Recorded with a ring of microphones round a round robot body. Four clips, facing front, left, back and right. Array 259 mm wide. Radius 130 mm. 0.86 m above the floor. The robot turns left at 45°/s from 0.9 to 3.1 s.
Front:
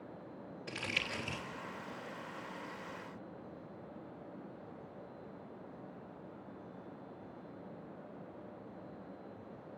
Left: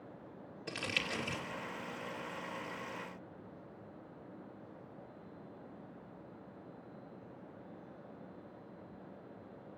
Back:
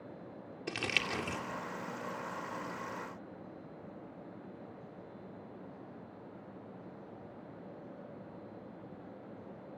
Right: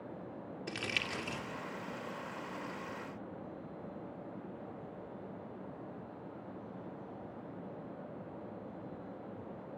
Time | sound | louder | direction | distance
0.7 | crumpling | left 1 dB, back 5 dB | 175° right | 3 m